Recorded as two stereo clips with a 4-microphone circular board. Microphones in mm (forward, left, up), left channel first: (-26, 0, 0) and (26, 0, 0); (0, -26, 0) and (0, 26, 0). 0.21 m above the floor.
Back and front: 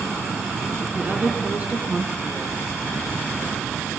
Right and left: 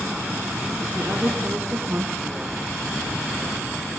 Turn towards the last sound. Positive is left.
turn(degrees=50)